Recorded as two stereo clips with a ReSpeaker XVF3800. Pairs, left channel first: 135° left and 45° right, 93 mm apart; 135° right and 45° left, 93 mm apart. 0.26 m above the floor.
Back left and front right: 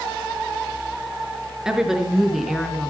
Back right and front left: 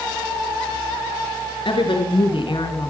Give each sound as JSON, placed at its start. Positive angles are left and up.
{"t": 1.6, "sound": "a woman speaking", "azimuth_deg": -130, "distance_m": 4.5}